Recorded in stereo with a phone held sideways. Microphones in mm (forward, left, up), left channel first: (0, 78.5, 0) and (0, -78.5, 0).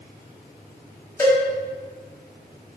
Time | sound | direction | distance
1.2 | a cowbell | 20° left (ahead or behind) | 3.5 m